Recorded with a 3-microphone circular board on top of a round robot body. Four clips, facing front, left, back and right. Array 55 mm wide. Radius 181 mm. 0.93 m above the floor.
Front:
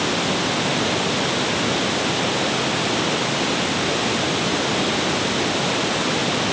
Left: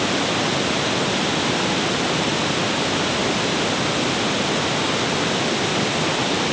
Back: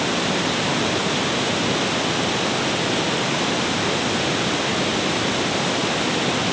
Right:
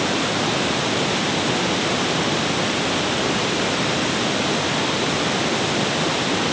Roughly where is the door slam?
I don't hear a door slam.